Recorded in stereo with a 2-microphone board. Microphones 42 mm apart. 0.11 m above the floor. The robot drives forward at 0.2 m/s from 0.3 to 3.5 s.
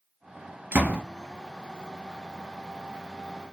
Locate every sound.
0.7 s a door slam: 45° right (ahead or behind), 1.5 m